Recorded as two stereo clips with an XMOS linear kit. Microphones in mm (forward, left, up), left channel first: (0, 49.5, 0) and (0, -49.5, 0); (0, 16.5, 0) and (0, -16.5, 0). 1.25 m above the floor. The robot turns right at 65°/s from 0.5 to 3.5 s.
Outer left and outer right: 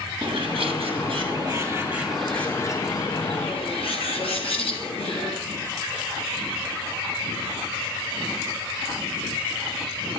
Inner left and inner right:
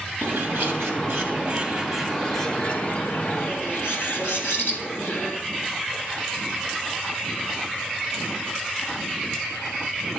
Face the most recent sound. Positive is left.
turn(degrees=90)